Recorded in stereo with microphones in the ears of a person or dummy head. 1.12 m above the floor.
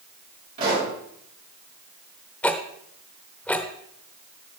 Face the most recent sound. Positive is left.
turn(degrees=10)  # may be behind; listen again after turning